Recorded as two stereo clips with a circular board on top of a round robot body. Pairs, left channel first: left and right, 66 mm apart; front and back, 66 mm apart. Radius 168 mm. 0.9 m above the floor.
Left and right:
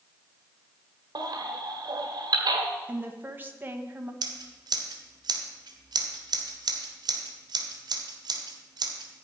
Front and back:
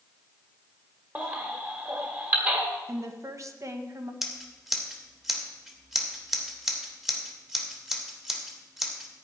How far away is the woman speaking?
About 1.6 m.